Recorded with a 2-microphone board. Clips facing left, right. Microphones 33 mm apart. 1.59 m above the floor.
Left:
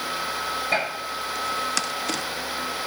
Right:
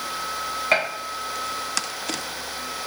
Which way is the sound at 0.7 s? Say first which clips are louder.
Right 4 dB; 65° right (ahead or behind).